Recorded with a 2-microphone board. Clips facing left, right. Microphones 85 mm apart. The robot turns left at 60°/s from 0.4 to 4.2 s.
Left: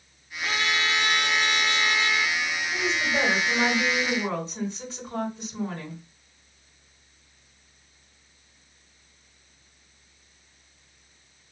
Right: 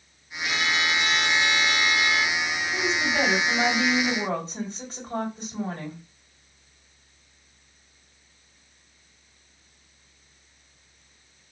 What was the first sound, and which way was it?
A trumpet, 125° left.